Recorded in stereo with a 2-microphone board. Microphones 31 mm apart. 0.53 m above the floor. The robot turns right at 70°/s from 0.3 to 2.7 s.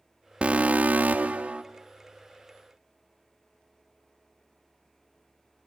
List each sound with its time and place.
0.4 s an alarm: 130° right, 1.0 m; by 1.6 s 45° right, 1.0 m